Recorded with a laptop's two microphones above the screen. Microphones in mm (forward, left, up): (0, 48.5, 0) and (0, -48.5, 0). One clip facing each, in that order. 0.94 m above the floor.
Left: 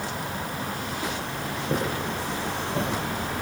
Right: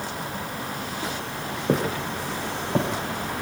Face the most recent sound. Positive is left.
turn(degrees=-65)  # may be behind; listen again after turning